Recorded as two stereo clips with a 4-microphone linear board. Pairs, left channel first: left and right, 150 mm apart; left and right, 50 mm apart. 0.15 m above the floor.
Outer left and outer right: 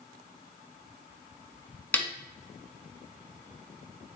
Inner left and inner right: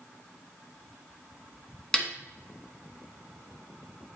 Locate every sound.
1.9 s a snare drum: 10° left (ahead or behind), 1.2 m